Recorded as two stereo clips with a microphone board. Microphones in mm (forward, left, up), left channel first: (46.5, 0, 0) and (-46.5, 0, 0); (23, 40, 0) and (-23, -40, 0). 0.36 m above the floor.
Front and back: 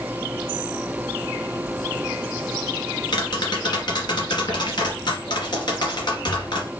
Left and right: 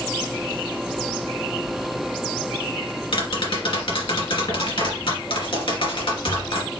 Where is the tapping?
35° left, 2.5 m.